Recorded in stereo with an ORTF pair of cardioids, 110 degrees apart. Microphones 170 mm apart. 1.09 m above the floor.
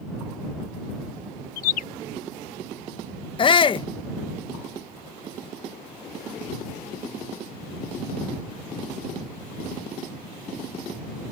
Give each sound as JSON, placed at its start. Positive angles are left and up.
{"t": 1.6, "sound": "a bird", "azimuth_deg": 60}
{"t": 3.4, "sound": "a shout", "azimuth_deg": 30}